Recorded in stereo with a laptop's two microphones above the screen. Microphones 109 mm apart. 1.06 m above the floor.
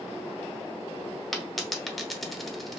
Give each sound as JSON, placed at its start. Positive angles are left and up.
{"t": 1.3, "sound": "a dropped coin", "side_deg": 0, "distance_m": 0.8}